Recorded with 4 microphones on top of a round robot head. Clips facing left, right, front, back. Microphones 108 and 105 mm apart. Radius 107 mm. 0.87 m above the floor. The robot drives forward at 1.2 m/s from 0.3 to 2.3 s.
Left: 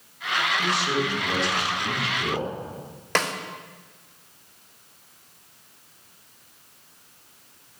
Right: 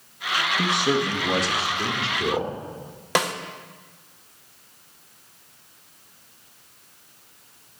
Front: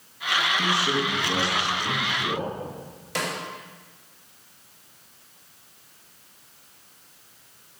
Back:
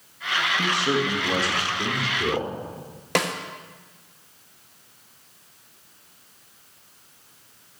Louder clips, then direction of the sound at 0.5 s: Right 4 dB, back 3 dB; 100° right.